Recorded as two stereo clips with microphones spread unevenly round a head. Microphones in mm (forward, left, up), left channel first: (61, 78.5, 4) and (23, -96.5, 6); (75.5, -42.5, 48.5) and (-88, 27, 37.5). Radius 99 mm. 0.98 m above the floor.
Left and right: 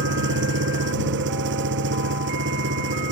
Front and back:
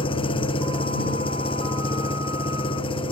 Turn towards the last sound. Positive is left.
turn(degrees=-85)